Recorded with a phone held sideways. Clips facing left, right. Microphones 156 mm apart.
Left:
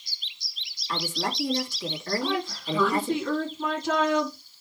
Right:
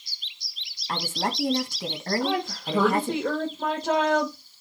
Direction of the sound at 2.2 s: 80° right.